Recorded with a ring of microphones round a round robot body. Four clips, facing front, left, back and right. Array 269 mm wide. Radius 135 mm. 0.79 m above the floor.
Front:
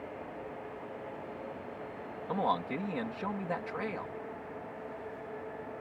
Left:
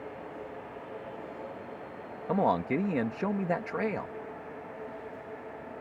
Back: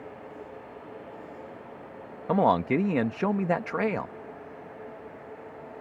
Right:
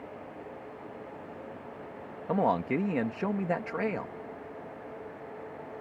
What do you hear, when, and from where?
2.3 s a man speaking: straight behind